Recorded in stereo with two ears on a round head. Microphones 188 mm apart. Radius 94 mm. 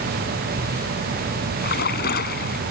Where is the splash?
50° left (ahead or behind).